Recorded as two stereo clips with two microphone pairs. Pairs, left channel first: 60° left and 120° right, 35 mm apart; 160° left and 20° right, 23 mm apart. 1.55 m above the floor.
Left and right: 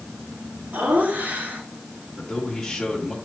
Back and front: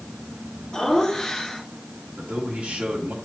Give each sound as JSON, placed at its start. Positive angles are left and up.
{"t": 0.7, "sound": "laughter", "azimuth_deg": -135, "distance_m": 2.5}
{"t": 2.2, "sound": "a man speaking", "azimuth_deg": -20, "distance_m": 2.5}